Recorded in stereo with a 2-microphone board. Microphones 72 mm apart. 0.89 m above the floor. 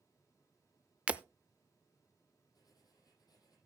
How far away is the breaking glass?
About 0.5 m.